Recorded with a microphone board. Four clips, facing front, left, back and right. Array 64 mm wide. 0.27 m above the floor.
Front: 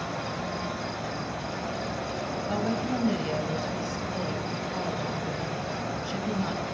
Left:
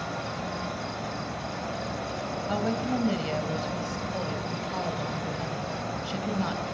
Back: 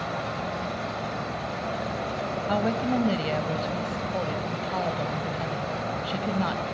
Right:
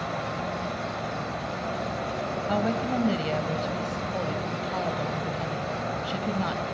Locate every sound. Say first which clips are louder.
0.0 s an insect: right 3 dB, back 2 dB; 140° right, 1.9 m
2.5 s a woman speaking: right 1 dB, back 4 dB; 165° right, 1.6 m